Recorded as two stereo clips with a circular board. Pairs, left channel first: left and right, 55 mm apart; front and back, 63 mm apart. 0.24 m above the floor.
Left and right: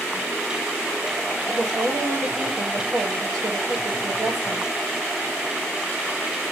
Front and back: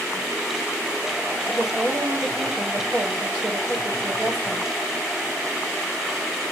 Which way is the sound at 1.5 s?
100° right.